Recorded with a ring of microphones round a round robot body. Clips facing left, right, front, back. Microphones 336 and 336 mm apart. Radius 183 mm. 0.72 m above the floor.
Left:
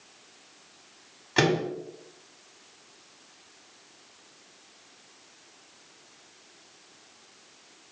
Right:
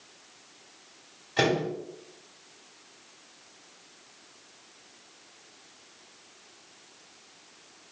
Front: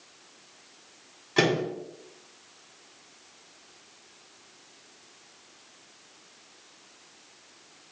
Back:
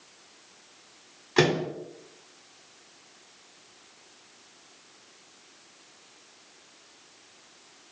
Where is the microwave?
95° left, 1.8 m.